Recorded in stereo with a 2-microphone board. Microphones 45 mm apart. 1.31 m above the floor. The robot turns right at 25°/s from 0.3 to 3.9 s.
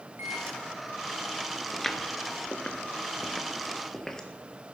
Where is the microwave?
75° right (ahead or behind), 2.5 m; by 0.6 s 80° right, 2.5 m.